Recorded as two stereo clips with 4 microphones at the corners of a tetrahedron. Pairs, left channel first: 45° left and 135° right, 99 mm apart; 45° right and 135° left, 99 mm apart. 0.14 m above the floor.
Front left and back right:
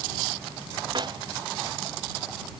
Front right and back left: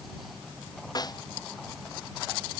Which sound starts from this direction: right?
A snare drum, at 0.9 s.